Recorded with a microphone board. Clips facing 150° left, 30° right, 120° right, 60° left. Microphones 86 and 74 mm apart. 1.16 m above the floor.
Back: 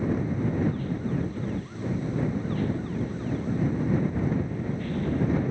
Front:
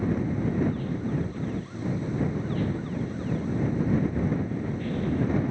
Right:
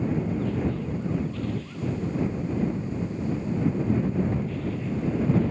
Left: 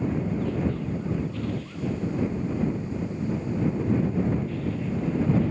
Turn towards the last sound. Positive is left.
No sound to turn to.